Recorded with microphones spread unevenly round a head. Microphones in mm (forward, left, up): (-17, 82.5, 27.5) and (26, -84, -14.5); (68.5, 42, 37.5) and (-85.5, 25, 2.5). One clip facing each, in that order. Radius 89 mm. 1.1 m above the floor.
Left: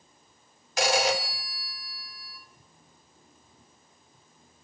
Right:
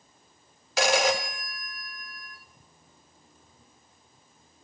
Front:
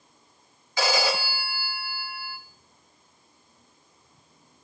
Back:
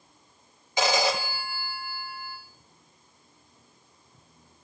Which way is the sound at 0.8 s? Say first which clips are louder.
Right 1 dB, back 1 dB; 100° right.